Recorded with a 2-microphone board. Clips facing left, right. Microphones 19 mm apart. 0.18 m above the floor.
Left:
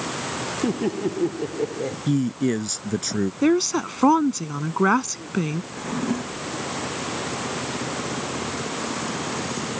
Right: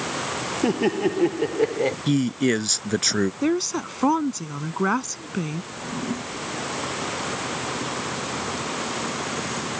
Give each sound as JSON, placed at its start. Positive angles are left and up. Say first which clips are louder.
{"t": 0.6, "sound": "laughter", "louder": "right 3 dB", "side_deg": -50}
{"t": 2.1, "sound": "a man speaking", "louder": "left 1 dB", "side_deg": -45}
{"t": 3.4, "sound": "a woman speaking", "louder": "left 4 dB", "side_deg": 20}
{"t": 5.7, "sound": "a drawer", "louder": "left 3 dB", "side_deg": 15}